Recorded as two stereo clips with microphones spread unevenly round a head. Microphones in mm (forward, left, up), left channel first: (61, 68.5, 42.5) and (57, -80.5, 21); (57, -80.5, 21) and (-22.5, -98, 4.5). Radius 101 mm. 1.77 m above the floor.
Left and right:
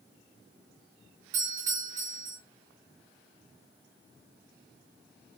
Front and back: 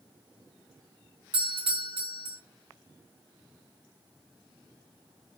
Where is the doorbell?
165° right, 3.5 m.